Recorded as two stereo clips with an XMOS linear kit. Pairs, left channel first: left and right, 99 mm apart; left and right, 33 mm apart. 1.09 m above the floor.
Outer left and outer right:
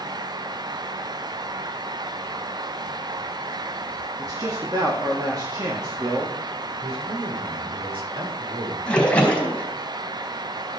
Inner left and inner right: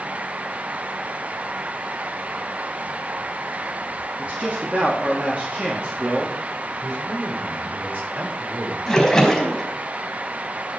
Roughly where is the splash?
Centre.